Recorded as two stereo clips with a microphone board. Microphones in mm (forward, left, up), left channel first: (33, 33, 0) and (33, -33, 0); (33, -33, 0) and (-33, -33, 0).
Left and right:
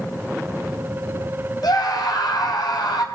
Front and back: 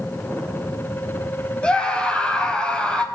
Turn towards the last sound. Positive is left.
turn(degrees=75)